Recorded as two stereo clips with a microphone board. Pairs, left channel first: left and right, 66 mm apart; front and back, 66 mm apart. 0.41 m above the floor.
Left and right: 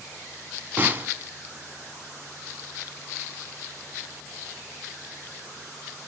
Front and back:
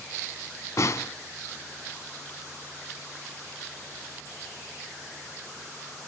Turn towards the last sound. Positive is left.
turn(degrees=-30)